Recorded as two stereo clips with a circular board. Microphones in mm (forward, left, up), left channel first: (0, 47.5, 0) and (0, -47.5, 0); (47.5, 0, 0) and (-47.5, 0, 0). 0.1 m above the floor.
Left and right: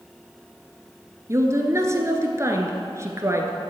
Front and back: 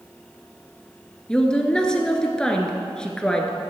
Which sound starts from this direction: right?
A woman speaking, at 1.3 s.